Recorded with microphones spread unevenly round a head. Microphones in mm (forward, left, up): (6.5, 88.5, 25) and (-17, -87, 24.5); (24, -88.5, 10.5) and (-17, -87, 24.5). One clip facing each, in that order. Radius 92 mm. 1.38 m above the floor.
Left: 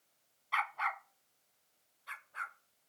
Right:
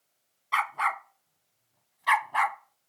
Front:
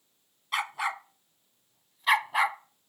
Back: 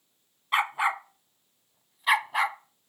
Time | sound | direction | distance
0.5 | a dog barking | 130° right | ?